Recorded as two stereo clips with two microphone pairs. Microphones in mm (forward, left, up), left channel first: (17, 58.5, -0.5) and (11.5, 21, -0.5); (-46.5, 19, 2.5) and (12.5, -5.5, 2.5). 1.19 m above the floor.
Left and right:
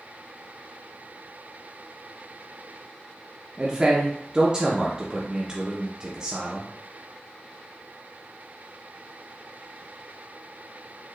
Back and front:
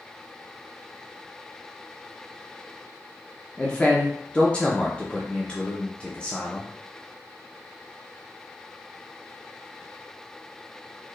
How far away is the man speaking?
About 0.7 m.